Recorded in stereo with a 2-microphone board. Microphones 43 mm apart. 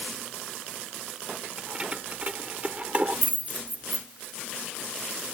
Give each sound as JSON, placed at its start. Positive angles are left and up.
{"t": 1.6, "sound": "keys jangling", "side_deg": -20}